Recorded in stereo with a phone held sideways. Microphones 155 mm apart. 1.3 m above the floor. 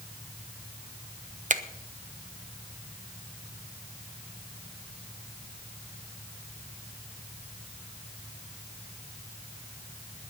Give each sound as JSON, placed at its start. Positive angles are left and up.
{"t": 1.5, "sound": "a finger snap", "side_deg": -55, "distance_m": 0.9}